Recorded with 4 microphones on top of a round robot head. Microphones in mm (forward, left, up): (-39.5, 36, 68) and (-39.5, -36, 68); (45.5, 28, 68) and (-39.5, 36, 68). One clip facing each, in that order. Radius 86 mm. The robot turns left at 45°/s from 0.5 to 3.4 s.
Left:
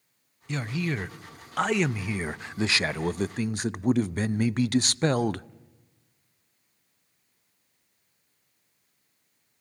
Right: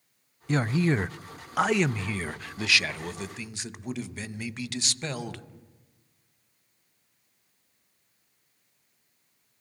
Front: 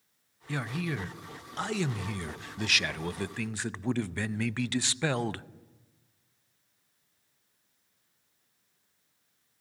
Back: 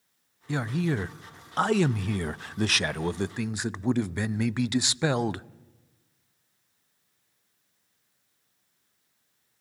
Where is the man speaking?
125° right, 0.5 m; by 5.5 s 105° left, 0.5 m.